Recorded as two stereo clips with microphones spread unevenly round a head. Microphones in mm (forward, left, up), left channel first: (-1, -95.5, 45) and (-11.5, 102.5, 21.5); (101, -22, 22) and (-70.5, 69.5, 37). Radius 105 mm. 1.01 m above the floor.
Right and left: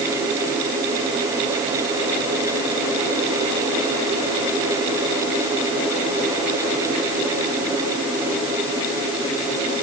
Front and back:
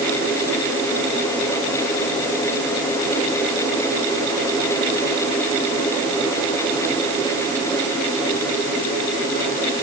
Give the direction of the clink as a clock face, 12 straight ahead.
No clink in this recording.